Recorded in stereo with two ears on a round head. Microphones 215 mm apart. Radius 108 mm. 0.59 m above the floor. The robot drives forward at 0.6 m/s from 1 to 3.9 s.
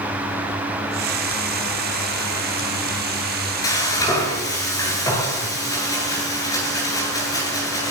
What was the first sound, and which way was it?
Frying, 15° left (ahead or behind).